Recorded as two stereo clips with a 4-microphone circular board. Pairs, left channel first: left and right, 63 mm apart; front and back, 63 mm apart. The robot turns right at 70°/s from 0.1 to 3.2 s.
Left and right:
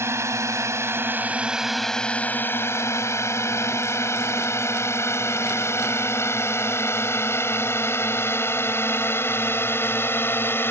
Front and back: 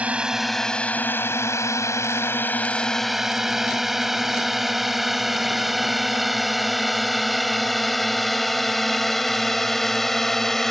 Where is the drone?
115° right; by 10.7 s 80° left.